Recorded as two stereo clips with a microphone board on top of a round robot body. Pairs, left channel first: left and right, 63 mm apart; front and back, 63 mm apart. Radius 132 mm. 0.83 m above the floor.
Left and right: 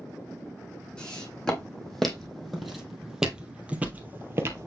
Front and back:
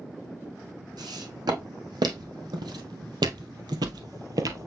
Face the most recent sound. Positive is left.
turn(degrees=-140)